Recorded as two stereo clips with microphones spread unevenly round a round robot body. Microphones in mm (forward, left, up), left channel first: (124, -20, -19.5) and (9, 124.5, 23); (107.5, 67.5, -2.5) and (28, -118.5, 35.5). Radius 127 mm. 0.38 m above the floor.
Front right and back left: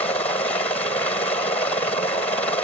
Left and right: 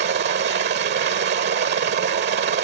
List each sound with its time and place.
0.0 s a helicopter: 115° right